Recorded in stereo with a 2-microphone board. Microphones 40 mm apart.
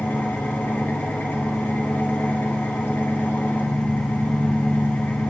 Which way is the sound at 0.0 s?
65° left (ahead or behind).